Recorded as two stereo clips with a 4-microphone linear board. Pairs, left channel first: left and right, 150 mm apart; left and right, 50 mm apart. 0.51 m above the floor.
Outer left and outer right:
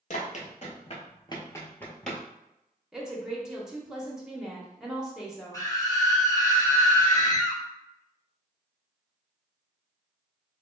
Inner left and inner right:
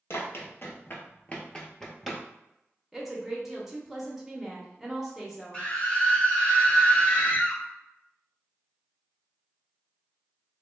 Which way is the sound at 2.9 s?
5° right (ahead or behind).